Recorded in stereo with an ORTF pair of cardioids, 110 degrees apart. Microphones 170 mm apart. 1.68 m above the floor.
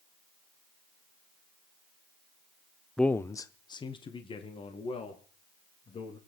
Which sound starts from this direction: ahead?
A man speaking, at 3.0 s.